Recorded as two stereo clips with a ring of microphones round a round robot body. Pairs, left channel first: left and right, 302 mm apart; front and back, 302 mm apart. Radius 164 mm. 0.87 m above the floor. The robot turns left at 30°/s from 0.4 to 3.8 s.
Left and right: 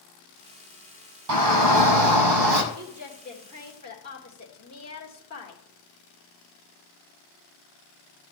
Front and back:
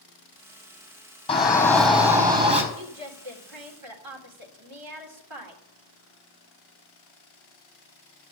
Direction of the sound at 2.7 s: 165° right.